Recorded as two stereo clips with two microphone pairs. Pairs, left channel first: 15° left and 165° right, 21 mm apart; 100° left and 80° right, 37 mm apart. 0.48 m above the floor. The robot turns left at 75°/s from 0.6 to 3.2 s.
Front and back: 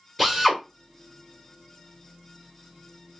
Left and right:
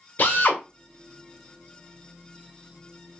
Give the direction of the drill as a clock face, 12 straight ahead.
9 o'clock.